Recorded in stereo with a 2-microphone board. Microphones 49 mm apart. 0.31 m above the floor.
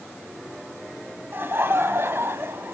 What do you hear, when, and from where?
1.3 s laughter: 50° right (ahead or behind), 1.9 m